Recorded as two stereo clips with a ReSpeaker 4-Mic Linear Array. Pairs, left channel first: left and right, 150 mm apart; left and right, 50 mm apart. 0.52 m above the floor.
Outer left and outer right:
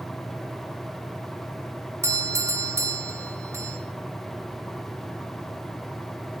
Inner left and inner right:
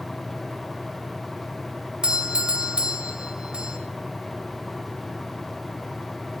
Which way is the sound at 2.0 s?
20° right (ahead or behind).